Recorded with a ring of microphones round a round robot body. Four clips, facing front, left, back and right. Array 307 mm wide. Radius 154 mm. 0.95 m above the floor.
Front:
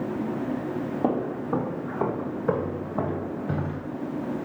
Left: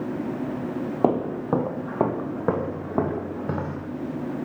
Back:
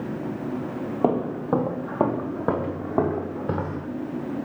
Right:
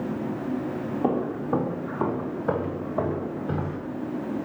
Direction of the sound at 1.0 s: 120° left.